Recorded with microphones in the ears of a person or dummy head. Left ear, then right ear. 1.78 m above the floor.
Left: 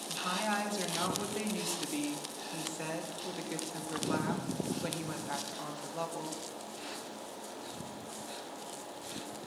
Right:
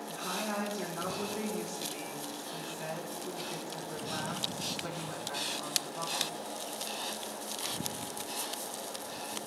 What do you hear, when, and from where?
0.1 s a woman speaking: 30° left (ahead or behind), 1.9 m